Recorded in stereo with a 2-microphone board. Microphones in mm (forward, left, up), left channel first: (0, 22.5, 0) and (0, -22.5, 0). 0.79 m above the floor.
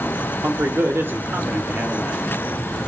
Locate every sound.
0.4 s a man speaking: 65° right (ahead or behind), 2.5 m; by 2.2 s 45° right (ahead or behind), 1.8 m